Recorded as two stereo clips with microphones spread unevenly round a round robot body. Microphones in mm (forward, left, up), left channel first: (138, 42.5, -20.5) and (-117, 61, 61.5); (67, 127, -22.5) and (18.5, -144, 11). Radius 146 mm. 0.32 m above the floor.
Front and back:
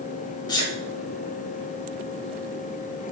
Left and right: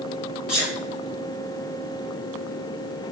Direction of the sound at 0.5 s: 5° right.